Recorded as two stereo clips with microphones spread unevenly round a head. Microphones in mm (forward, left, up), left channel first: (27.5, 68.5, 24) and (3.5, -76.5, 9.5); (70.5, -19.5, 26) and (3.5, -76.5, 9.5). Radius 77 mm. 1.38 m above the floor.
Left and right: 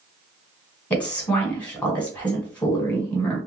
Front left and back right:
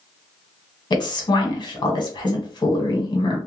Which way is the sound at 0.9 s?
Straight ahead.